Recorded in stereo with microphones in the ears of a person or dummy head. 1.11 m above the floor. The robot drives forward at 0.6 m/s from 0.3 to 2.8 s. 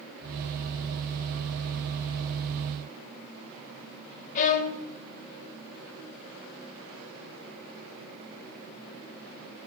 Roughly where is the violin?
Left.